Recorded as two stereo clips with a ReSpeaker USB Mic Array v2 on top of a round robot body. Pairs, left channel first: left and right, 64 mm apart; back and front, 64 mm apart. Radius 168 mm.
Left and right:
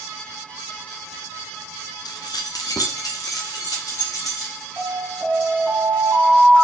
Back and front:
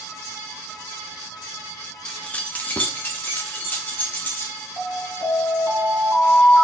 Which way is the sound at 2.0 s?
100° left.